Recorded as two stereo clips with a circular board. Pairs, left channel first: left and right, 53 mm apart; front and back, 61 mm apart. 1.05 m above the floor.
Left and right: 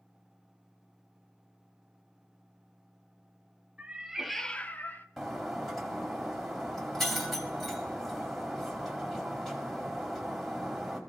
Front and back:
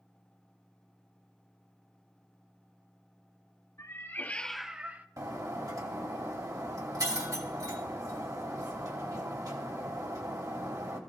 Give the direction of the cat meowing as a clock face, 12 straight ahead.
1 o'clock.